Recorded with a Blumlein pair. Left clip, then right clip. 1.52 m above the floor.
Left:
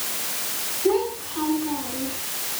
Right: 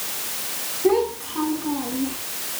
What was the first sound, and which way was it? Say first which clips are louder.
A child speaking: right 3 dB; 30° right.